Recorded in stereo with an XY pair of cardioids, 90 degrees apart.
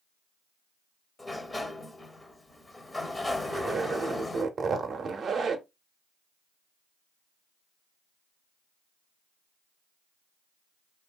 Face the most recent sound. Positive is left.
turn(degrees=-55)